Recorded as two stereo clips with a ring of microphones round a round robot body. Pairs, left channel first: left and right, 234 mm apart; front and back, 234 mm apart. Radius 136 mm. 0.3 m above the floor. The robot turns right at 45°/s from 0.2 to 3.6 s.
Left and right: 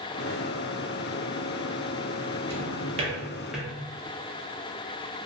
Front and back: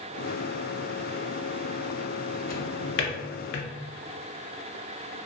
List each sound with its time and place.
2.5 s a drawer: 50° right, 0.5 m; by 3.7 s straight ahead, 0.5 m